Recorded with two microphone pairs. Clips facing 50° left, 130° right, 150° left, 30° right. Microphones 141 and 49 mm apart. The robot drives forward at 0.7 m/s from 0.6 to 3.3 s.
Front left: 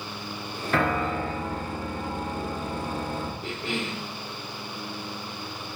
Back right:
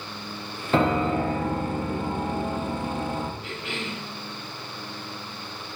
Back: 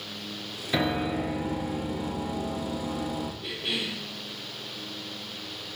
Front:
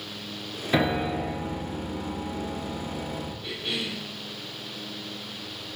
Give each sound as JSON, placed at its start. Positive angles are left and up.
{"t": 0.7, "sound": "a piano", "azimuth_deg": -85, "distance_m": 0.7}
{"t": 3.4, "sound": "a cough", "azimuth_deg": 85, "distance_m": 2.5}